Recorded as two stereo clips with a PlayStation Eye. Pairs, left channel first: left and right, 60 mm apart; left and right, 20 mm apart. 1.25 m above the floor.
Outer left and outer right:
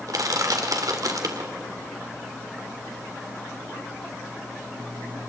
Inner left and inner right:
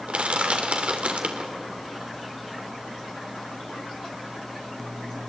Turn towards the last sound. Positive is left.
turn(degrees=-75)  # may be behind; listen again after turning